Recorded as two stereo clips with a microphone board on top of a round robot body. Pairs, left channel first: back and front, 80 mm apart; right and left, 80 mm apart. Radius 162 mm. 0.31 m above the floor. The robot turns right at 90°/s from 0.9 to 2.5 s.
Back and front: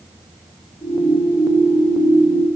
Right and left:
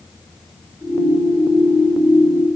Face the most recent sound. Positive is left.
No sound to turn to.